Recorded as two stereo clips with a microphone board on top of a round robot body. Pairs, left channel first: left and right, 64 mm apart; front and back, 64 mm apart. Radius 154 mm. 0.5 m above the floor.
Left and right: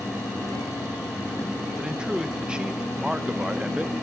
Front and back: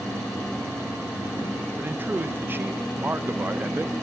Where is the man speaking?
155° right, 1.1 m.